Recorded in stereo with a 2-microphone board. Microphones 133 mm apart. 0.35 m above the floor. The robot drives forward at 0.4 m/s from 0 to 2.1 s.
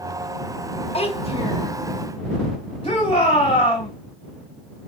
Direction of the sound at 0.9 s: 45° left (ahead or behind).